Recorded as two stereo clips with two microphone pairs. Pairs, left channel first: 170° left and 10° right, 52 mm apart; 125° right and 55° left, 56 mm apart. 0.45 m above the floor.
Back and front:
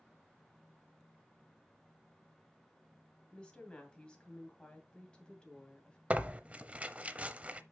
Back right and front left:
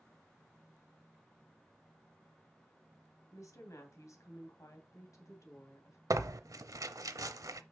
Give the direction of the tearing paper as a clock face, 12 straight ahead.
10 o'clock.